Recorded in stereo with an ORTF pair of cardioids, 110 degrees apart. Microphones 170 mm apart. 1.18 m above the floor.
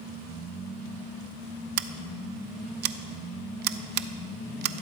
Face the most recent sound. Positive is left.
turn(degrees=-70)